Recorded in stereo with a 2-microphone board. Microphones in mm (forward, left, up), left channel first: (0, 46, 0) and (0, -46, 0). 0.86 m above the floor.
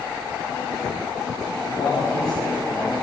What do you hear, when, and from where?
1.7 s a man speaking: 50° left (ahead or behind), 4 m